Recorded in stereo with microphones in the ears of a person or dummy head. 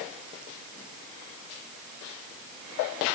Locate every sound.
Only background noise.